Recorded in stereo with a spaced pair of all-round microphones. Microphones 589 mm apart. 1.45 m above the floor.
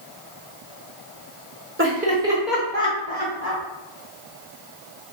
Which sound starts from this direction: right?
Laughter, at 1.8 s.